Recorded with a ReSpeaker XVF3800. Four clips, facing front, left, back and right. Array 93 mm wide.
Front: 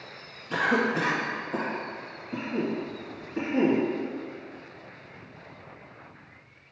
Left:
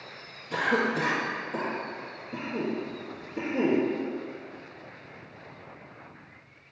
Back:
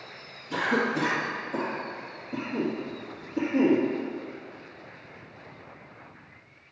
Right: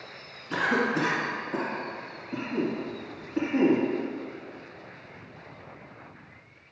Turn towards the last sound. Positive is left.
turn(degrees=-50)